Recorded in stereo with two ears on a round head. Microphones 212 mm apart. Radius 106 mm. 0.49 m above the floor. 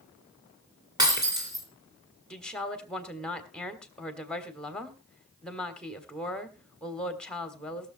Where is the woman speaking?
5° left (ahead or behind), 1.4 m.